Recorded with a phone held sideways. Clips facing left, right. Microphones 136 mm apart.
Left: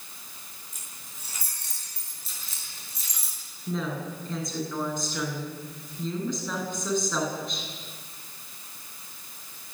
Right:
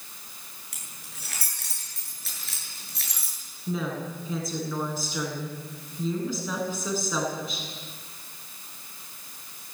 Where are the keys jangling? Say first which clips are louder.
Right 1 dB; 75° right (ahead or behind), 9 m; by 3.4 s 65° right (ahead or behind), 9.5 m.